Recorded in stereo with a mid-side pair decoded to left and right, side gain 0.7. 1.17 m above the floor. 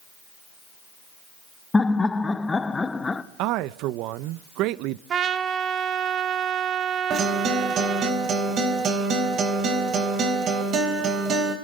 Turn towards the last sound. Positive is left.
turn(degrees=-45)